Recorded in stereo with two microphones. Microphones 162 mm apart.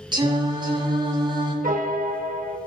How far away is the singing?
About 2 m.